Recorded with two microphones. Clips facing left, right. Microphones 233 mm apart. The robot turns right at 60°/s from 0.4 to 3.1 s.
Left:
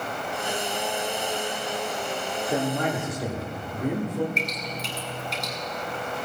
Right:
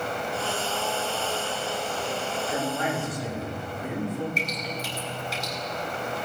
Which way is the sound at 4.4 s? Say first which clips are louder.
Even; centre (ahead or behind).